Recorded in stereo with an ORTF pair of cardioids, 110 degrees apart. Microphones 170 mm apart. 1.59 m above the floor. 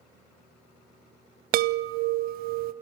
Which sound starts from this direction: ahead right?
A chime, at 1.5 s.